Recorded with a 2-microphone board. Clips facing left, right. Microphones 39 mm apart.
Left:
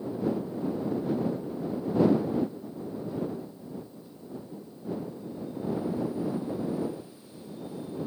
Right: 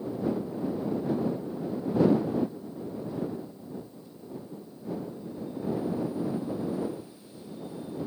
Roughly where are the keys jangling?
No keys jangling in this recording.